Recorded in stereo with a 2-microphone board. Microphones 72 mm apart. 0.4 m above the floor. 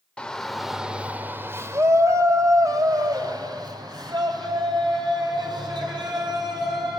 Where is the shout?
15° left (ahead or behind), 1.2 m; by 7.0 s 80° right, 5 m.